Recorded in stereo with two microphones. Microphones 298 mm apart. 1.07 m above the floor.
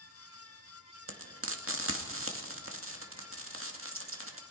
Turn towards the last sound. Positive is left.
turn(degrees=-45)  # may be behind; listen again after turning